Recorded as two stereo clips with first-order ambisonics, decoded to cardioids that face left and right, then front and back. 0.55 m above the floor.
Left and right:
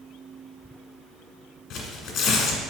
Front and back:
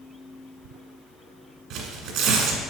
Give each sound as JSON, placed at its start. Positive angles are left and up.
{"t": 1.7, "sound": "tearing paper", "azimuth_deg": 140, "distance_m": 1.7}